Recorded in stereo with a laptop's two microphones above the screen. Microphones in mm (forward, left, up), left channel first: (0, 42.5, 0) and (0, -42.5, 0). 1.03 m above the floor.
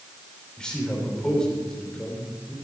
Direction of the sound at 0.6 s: 10° left (ahead or behind).